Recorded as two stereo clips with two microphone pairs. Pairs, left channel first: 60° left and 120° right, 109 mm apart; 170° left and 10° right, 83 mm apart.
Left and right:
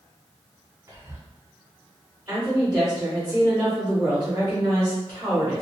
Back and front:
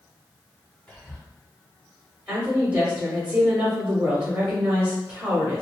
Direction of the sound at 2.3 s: 60° right.